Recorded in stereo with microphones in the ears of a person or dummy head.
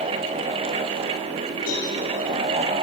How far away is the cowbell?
About 9.5 m.